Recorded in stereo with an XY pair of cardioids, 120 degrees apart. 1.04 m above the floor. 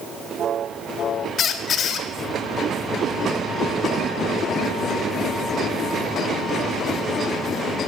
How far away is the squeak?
About 1.6 m.